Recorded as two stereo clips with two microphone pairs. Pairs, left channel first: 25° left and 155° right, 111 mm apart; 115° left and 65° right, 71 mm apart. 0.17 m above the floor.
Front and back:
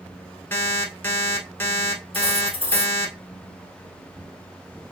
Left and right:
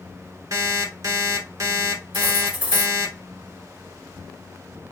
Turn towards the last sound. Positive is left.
turn(degrees=-130)